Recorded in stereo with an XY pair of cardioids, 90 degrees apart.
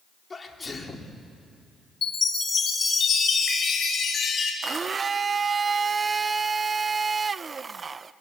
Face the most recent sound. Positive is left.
turn(degrees=-40)